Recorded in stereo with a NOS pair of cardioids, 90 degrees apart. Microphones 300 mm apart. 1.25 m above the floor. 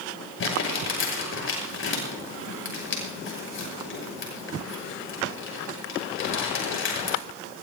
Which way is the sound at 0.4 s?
40° left.